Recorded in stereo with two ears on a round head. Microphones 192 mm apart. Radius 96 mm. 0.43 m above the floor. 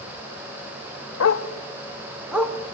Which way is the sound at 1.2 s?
75° left (ahead or behind).